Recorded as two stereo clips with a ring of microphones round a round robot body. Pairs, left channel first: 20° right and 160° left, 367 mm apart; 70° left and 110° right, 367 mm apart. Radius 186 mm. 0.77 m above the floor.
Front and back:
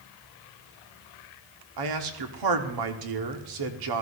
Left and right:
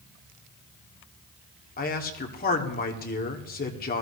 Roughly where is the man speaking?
Behind left.